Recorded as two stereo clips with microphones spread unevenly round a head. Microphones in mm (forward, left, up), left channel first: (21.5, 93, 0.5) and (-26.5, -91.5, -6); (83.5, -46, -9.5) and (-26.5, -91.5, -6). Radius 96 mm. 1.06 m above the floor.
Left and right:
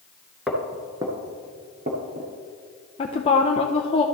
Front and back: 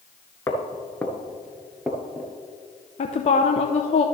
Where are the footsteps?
10° right, 1.0 m; by 2.3 s 75° right, 1.6 m.